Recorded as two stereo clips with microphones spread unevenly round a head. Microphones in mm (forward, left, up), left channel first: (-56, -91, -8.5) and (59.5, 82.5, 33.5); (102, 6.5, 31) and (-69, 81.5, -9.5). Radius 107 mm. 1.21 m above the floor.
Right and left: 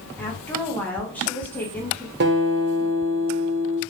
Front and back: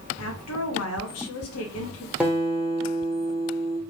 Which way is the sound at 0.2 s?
40° right.